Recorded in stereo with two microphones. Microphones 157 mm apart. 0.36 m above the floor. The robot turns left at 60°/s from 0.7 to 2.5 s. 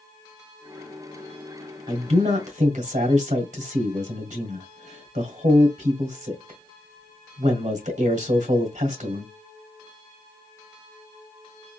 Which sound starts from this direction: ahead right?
A man speaking, at 1.9 s.